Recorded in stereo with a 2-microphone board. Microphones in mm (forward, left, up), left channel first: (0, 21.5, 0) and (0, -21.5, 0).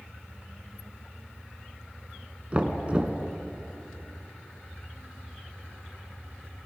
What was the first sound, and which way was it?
Knocking, 30° right (ahead or behind).